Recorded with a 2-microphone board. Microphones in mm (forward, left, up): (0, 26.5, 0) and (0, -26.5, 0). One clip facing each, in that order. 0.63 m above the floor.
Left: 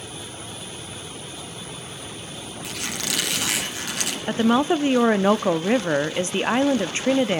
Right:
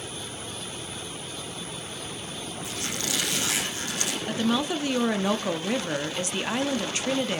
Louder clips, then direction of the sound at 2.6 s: Left 3 dB; 85° left.